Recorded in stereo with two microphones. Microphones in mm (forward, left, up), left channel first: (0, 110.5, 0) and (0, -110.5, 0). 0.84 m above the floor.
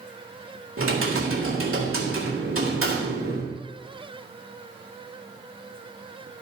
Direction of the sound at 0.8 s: 75° right (ahead or behind).